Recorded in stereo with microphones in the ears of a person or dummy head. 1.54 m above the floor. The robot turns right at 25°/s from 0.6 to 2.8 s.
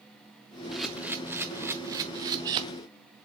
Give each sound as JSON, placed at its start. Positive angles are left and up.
{"t": 0.7, "sound": "a camera shutter", "side_deg": 0, "distance_m": 0.6}